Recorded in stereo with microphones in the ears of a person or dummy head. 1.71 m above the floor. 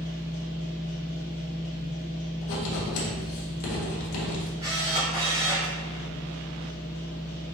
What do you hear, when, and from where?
0.0 s a machine running: 40° left (ahead or behind), 1.0 m
2.4 s writing: 80° left, 1.3 m
4.6 s a camera shutter: 20° right (ahead or behind), 1.9 m